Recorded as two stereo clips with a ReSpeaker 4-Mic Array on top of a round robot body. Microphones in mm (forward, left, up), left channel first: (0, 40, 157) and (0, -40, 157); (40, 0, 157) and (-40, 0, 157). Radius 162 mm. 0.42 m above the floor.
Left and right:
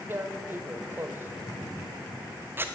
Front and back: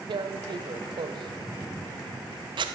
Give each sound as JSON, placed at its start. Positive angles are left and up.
{"t": 0.1, "sound": "tearing paper", "azimuth_deg": -155, "distance_m": 0.5}